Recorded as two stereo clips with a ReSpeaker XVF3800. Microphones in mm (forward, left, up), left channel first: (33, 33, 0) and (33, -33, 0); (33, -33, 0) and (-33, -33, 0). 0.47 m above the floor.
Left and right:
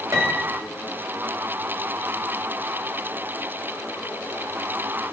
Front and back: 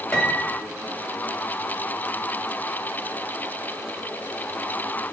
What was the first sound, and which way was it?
A piano, 70° right.